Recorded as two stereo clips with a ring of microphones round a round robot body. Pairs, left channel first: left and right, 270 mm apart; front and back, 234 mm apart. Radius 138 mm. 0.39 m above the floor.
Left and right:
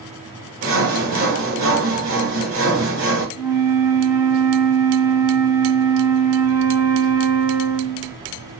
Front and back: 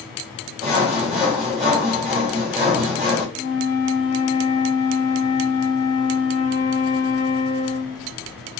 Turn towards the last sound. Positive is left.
turn(degrees=-15)